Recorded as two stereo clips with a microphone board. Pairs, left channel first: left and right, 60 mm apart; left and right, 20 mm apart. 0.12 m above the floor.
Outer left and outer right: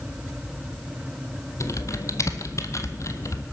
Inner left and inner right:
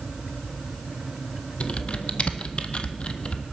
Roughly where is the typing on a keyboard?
Left.